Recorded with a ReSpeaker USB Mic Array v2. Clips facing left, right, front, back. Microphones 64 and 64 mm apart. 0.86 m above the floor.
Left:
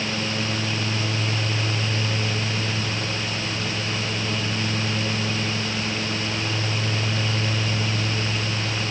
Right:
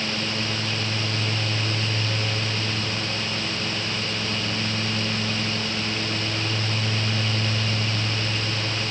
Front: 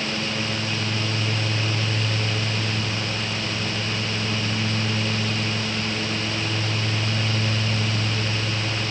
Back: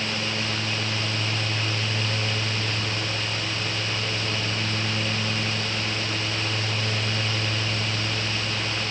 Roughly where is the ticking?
No ticking in this recording.